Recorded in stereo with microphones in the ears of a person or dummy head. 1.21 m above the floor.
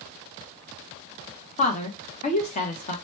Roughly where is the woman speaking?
Left.